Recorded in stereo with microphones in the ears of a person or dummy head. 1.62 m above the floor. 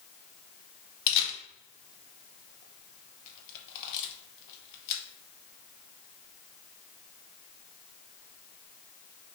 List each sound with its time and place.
1.1 s a camera shutter: 60° left (ahead or behind), 0.7 m